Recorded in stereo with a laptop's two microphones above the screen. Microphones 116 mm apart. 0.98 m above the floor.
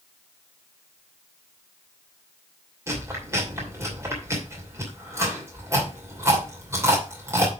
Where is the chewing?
25° right (ahead or behind), 2.5 m.